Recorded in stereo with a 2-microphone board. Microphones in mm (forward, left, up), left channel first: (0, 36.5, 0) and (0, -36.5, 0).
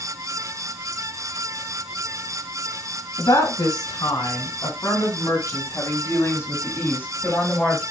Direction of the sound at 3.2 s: 65° left (ahead or behind).